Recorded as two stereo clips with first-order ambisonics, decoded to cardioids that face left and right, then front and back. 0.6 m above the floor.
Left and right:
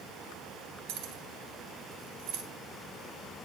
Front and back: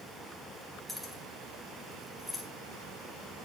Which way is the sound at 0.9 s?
90° right.